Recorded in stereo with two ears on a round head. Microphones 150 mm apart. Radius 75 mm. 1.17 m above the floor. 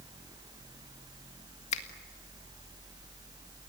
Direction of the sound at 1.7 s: 40° left (ahead or behind).